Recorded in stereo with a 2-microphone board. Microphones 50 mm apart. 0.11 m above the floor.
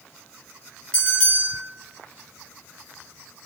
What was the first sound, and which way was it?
A bell, 15° left (ahead or behind).